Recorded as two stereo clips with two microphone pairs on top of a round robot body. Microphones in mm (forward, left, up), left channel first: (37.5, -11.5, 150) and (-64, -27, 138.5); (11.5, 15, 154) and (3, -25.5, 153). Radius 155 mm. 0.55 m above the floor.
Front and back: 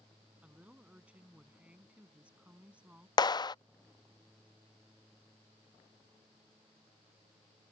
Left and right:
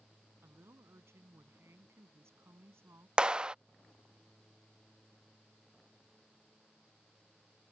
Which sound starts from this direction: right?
A woman speaking, at 0.4 s.